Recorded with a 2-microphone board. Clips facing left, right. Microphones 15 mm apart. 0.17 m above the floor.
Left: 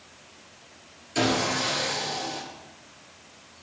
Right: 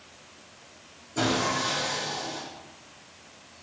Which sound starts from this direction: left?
Sawing, at 1.1 s.